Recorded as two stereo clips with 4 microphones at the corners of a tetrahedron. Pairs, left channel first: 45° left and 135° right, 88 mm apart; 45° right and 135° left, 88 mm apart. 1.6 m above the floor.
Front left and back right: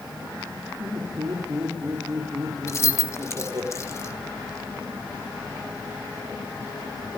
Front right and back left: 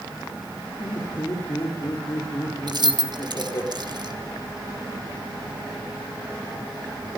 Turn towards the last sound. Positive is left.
turn(degrees=100)